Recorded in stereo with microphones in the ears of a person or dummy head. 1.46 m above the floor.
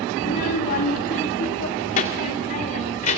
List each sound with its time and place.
0.2 s a child speaking: 20° left (ahead or behind), 0.8 m; by 3.2 s 40° left (ahead or behind), 3 m